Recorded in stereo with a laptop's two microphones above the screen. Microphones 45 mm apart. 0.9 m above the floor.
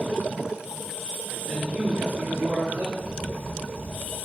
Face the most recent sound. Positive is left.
turn(degrees=70)  # may be behind; listen again after turning